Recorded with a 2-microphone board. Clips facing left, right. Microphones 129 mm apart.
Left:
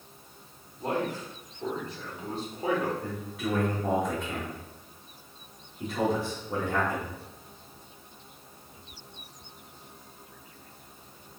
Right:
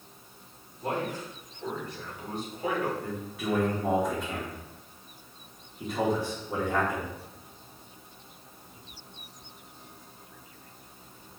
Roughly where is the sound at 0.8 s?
Left.